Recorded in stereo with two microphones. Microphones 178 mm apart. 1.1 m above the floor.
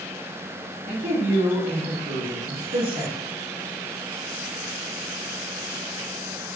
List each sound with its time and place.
0.9 s a man speaking: 55° right (ahead or behind), 2 m